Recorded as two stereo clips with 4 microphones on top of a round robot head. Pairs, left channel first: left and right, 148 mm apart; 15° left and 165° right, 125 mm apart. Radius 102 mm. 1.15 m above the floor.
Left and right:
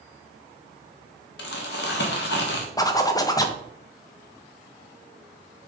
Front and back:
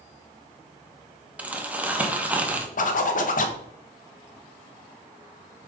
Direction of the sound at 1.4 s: 115° left.